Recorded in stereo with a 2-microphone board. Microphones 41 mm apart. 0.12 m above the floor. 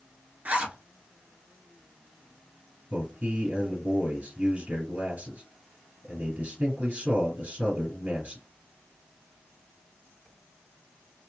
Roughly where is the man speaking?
Right.